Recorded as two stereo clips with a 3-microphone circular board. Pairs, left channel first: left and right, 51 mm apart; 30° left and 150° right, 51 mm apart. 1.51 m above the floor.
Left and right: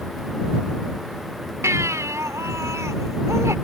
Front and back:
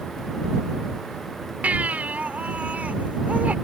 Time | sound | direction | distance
1.6 | a baby crying | 90° right | ?